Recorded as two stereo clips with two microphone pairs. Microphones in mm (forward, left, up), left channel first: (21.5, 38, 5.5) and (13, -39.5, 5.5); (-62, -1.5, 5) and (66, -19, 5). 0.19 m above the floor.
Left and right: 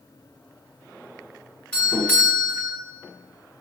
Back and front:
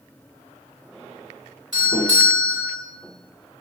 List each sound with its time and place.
1.7 s a doorbell: 20° left, 1.9 m